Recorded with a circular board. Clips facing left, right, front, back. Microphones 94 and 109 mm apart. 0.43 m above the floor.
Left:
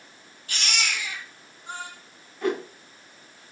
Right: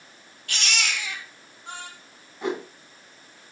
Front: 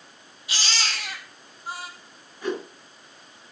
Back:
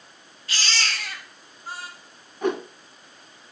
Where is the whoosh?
160° right, 2.5 m.